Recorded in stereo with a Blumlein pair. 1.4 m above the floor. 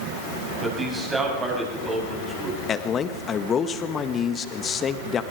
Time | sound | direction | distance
0.6 | a man speaking | 15° right | 9 m
2.7 | a man speaking | 20° left | 1.5 m